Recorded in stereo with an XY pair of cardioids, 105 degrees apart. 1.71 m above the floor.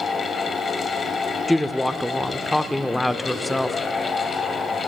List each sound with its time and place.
0.0 s a fan: 45° left, 1.2 m
1.5 s a woman speaking: 15° left, 0.6 m